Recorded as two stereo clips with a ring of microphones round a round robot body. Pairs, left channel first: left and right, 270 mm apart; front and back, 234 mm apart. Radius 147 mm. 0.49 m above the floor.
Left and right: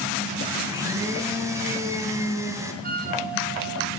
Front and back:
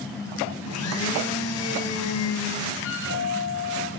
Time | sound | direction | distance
0.7 | a blender | 10° right | 3 m
2.8 | a flute | 35° right | 3 m